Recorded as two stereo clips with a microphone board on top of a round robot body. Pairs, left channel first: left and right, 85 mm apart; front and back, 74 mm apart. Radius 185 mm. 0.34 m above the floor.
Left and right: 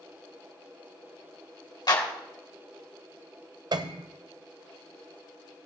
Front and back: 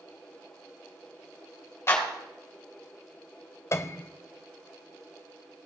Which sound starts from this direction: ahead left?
A clap, at 1.9 s.